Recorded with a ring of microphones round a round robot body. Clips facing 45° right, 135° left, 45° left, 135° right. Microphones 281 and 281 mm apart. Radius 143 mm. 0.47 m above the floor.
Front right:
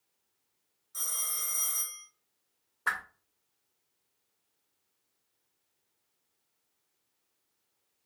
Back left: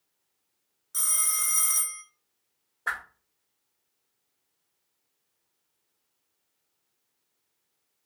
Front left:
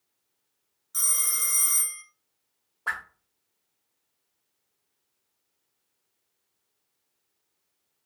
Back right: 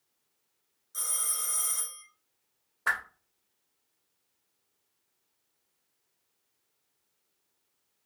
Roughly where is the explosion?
No explosion in this recording.